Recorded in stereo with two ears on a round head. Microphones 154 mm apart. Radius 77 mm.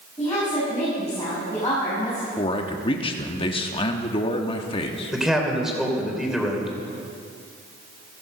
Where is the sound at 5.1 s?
5° right (ahead or behind), 3 m.